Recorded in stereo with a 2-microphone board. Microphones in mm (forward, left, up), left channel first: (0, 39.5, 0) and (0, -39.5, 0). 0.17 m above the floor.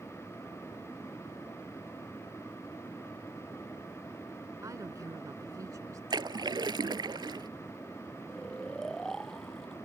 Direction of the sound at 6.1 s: 70° right (ahead or behind).